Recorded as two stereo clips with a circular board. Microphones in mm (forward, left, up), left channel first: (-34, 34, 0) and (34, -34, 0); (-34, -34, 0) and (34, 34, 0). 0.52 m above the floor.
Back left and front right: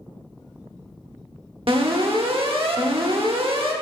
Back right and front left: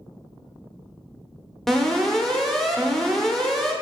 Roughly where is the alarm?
Ahead right.